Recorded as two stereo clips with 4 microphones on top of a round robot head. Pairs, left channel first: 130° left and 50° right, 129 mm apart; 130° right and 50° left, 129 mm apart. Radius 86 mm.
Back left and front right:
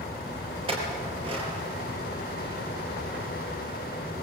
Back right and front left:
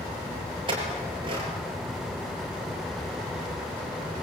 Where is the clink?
Straight ahead, 6 m.